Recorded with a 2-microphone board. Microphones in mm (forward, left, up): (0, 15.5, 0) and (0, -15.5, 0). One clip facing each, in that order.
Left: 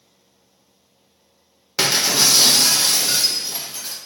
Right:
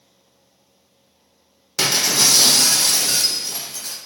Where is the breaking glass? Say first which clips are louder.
Even; 15° left (ahead or behind), 0.8 m.